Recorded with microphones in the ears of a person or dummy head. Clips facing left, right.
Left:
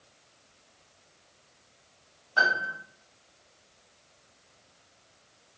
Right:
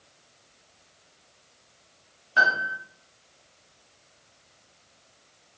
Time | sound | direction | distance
2.4 | a piano | 25° right (ahead or behind) | 0.9 m